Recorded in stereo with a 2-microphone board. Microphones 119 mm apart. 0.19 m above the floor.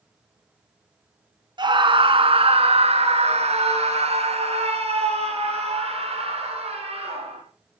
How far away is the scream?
About 1.9 m.